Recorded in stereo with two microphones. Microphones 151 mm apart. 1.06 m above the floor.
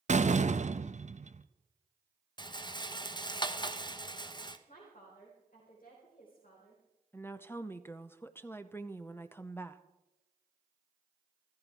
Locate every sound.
0.1 s a door slam: 50° right (ahead or behind), 0.7 m
2.4 s a rattle: 30° left (ahead or behind), 0.9 m
4.7 s a woman speaking: 65° left (ahead or behind), 4.5 m
7.1 s a woman speaking: 15° left (ahead or behind), 0.7 m